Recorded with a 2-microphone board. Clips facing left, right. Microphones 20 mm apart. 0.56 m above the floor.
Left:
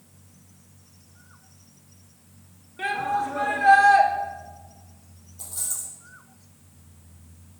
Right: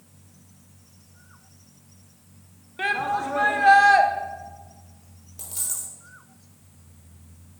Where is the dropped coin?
80° right, 3 m.